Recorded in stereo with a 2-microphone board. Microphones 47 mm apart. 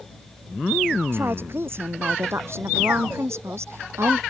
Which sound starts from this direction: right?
A woman speaking, at 1.1 s.